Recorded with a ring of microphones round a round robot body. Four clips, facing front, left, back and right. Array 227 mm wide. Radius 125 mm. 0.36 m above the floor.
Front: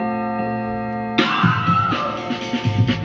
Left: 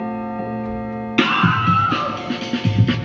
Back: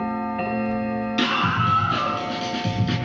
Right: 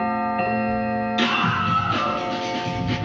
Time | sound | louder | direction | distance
1.2 | a scream | left 9 dB, front 5 dB | 60° left | 5.5 m